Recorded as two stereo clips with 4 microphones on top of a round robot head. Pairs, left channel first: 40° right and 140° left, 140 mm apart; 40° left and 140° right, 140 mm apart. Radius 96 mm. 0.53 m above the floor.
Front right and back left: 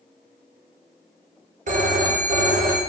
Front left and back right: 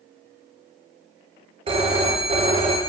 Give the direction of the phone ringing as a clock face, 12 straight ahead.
6 o'clock.